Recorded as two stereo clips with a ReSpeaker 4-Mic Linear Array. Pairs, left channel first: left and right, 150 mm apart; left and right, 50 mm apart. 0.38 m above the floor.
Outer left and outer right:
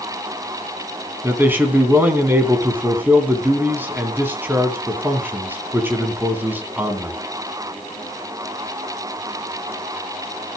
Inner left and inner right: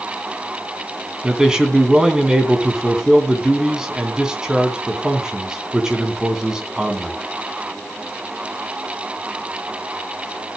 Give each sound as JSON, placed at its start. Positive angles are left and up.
{"t": 1.2, "sound": "a man speaking", "side_deg": -15, "distance_m": 3.5}